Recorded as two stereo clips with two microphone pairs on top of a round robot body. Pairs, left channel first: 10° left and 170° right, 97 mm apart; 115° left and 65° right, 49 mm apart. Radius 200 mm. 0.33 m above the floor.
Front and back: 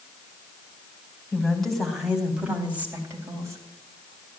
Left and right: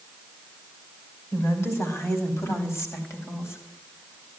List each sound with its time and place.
1.3 s a woman speaking: 90° left, 4.5 m; by 4.3 s 145° left, 4.5 m